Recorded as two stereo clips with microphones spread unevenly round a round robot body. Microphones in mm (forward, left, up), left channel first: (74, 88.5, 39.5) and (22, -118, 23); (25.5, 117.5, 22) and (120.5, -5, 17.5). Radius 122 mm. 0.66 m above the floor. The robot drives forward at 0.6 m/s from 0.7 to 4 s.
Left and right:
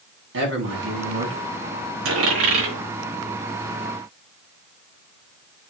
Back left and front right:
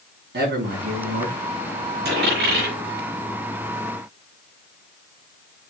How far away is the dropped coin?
About 5 m.